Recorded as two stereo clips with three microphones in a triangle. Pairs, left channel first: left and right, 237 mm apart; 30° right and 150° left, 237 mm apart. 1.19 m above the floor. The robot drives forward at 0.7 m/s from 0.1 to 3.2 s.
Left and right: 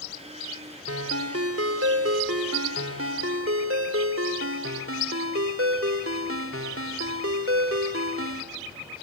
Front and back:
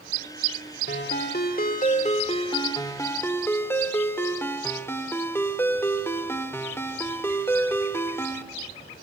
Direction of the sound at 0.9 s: 70° right.